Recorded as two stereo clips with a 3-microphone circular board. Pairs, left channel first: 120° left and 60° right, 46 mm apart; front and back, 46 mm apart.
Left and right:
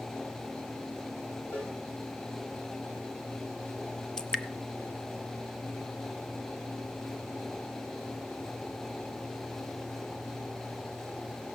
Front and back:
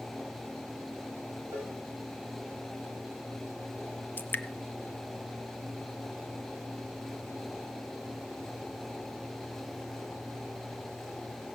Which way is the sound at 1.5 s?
165° left.